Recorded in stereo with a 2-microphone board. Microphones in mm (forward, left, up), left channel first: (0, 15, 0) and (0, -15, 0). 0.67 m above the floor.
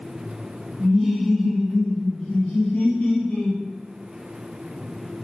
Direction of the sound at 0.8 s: 15° right (ahead or behind).